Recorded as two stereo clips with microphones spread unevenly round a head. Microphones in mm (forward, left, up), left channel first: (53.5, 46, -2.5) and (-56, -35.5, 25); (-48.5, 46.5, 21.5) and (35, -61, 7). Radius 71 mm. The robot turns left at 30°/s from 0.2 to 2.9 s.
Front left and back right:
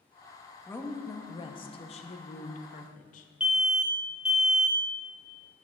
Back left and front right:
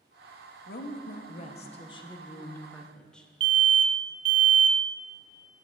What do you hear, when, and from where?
0.7 s a woman speaking: 105° left, 0.8 m; by 3.3 s 40° left, 0.8 m
3.4 s an alarm: 50° right, 0.6 m